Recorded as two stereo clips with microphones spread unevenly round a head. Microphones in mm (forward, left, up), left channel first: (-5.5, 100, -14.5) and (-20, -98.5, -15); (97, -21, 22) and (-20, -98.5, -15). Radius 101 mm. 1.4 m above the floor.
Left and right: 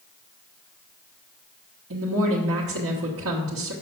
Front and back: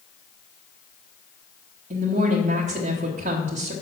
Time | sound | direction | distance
1.9 | a woman speaking | 115° right | 1.3 m